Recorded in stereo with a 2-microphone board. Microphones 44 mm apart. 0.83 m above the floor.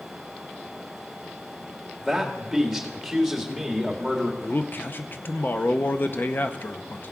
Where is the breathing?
I don't hear breathing.